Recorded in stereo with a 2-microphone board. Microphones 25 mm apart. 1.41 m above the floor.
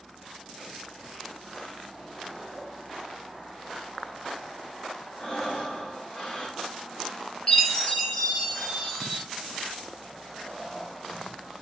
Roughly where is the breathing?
Left.